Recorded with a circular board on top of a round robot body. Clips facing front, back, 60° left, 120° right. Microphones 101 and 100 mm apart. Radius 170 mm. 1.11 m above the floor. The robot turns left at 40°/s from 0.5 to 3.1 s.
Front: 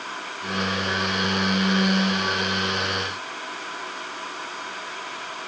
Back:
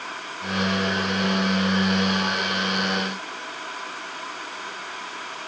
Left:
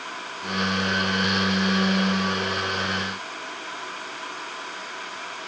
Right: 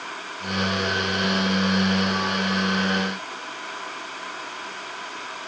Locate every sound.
Only background noise.